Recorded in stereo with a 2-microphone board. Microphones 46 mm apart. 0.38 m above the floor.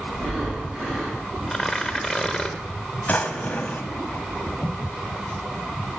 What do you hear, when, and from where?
0.1 s breathing: 5° right (ahead or behind), 3 m
1.5 s tearing paper: 15° left (ahead or behind), 0.6 m
3.1 s a drawer: 35° left (ahead or behind), 0.5 m